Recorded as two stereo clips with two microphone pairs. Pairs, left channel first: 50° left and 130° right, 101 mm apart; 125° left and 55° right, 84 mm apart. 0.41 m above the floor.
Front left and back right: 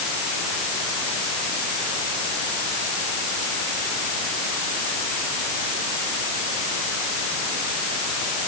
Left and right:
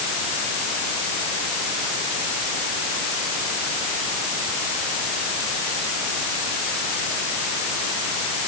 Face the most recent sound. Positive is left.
No sound to turn to.